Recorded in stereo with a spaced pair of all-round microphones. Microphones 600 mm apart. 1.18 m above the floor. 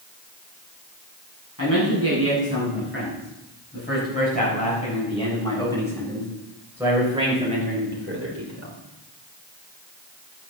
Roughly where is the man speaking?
Left.